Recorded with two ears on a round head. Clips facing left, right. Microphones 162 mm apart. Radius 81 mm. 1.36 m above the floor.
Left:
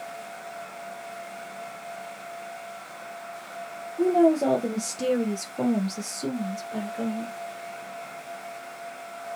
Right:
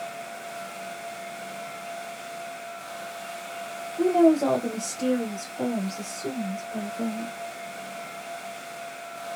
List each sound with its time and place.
4.0 s a woman speaking: 5° right (ahead or behind), 0.8 m; by 7.3 s 80° left, 1.5 m